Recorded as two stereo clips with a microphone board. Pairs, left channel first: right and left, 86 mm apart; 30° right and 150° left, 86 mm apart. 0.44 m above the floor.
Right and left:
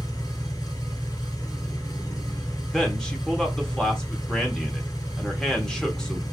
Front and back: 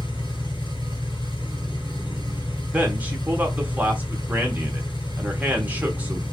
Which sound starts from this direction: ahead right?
An engine running, at 0.0 s.